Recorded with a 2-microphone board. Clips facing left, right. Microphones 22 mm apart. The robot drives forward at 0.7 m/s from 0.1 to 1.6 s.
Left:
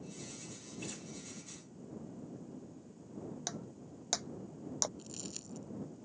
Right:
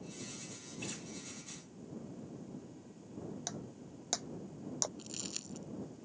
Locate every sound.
0.8 s a guitar: 15° right (ahead or behind)
3.5 s breaking glass: 10° left (ahead or behind)
5.0 s crumpling: 30° right (ahead or behind)